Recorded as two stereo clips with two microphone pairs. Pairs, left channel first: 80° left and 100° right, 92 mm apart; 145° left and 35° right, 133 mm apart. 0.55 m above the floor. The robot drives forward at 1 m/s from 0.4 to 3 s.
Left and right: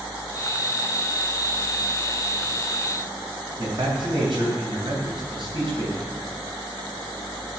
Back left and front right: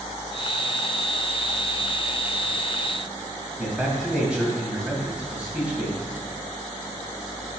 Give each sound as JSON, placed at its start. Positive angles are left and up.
{"t": 3.6, "sound": "a man speaking", "azimuth_deg": -120, "distance_m": 3.0}